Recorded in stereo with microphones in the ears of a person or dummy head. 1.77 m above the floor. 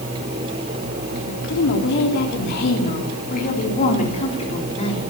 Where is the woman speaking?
60° left (ahead or behind), 4 m; by 5.1 s 30° left (ahead or behind), 4.5 m.